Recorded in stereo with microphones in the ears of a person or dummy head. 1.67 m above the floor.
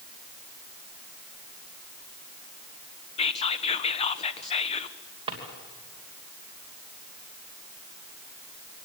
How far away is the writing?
No writing in this recording.